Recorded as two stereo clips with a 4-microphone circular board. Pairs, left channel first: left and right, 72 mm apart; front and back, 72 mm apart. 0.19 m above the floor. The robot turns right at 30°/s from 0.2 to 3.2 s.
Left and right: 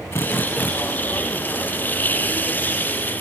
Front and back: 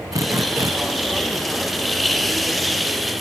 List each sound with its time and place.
0.1 s a drill: 140° left; by 0.7 s 155° left